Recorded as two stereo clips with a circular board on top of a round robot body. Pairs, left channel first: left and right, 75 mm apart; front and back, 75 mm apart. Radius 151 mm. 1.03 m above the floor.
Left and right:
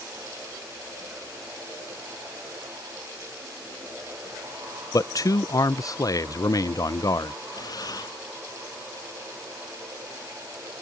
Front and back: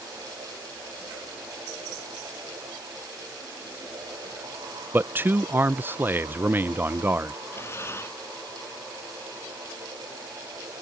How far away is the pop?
No pop in this recording.